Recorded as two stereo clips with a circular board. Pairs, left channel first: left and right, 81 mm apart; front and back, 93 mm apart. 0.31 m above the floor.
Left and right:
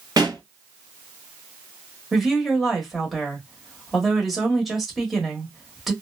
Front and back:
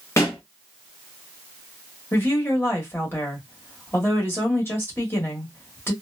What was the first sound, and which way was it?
A pop, 55° right.